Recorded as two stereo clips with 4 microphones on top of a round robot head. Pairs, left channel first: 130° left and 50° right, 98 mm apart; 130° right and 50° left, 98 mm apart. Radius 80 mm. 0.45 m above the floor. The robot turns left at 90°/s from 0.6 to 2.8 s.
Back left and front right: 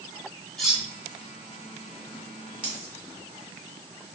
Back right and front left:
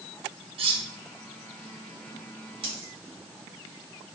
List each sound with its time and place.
0.6 s cutlery clinking: 45° left, 0.7 m; by 0.8 s 20° left, 0.7 m
2.6 s a dropped coin: 30° left, 1.4 m; by 2.9 s 15° left, 1.4 m